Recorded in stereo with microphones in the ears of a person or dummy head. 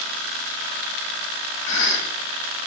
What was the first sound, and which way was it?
A cough, 70° left (ahead or behind).